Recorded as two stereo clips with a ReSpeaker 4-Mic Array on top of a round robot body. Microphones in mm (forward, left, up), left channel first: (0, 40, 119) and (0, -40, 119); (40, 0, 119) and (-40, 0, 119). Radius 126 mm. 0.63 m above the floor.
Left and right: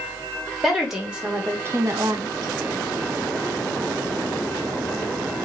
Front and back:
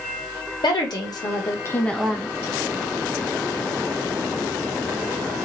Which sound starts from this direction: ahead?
A woman speaking, at 0.6 s.